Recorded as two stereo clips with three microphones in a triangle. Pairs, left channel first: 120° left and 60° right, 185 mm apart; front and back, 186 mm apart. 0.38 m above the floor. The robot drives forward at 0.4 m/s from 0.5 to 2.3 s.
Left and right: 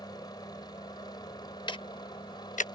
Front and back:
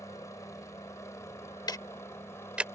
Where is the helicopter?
65° left; by 2.8 s 70° left.